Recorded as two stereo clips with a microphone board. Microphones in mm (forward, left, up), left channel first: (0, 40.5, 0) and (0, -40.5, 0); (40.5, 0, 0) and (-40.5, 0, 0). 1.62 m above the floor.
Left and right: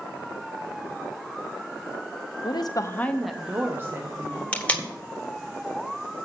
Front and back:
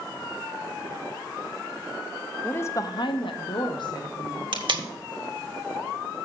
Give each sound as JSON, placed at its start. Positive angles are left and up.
{"t": 2.4, "sound": "a woman speaking", "azimuth_deg": 70, "distance_m": 0.9}
{"t": 4.5, "sound": "tape being pulled", "azimuth_deg": 165, "distance_m": 1.3}